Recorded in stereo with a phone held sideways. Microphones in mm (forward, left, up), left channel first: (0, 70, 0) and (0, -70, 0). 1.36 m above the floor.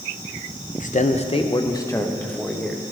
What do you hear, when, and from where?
0.8 s a man speaking: 70° left (ahead or behind), 0.7 m; by 2.8 s 5° left (ahead or behind), 1.5 m